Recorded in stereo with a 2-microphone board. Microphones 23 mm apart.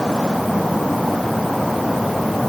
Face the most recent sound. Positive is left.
No sound to turn to.